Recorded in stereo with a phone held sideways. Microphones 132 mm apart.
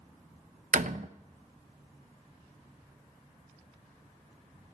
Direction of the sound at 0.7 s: 65° right (ahead or behind).